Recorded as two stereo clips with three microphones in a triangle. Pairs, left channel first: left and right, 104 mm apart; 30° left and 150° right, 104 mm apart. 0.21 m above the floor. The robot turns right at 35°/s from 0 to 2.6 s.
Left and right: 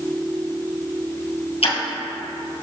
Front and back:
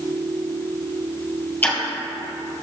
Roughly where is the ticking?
Left.